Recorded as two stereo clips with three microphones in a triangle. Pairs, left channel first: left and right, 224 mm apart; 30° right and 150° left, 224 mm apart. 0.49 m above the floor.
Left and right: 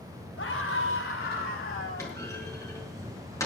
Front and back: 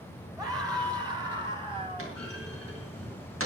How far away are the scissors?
I don't hear scissors.